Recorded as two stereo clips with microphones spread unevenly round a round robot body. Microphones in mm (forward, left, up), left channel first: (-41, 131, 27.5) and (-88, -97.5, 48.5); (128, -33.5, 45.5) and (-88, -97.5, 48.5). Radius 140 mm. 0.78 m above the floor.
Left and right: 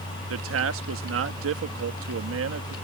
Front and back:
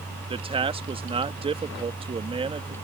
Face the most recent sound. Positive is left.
turn(degrees=-100)